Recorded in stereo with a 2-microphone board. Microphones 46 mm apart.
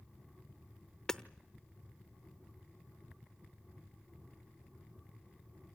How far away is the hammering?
About 0.8 m.